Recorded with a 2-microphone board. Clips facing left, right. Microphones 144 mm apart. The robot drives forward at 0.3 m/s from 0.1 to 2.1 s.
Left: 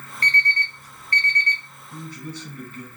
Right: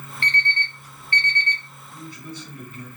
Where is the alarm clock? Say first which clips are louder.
Left 1 dB; 40° left (ahead or behind), 0.8 m; by 1.6 s 35° left (ahead or behind), 0.8 m.